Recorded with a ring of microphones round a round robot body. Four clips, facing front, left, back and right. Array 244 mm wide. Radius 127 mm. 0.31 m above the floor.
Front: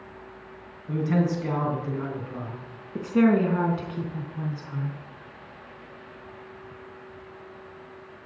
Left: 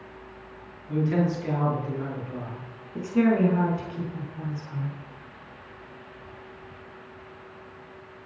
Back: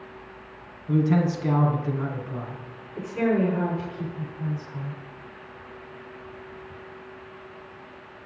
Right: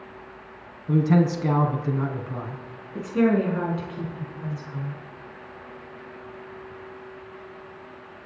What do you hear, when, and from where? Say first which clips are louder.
0.9 s a man speaking: right 4 dB, back 3 dB; 90° right, 3 m
3.0 s a woman speaking: right 1 dB, front 3 dB; 10° right, 4 m